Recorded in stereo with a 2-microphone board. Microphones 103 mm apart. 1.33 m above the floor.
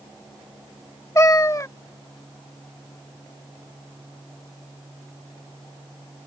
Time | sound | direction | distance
1.1 | a cat meowing | 30° left (ahead or behind) | ?